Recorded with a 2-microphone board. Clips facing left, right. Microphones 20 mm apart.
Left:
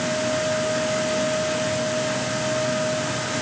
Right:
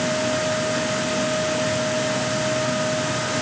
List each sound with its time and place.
Only background noise.